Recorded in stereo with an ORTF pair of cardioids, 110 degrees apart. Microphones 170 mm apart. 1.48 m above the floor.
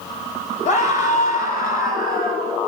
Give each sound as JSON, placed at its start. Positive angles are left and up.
{"t": 0.7, "sound": "a scream", "azimuth_deg": 45, "distance_m": 6.5}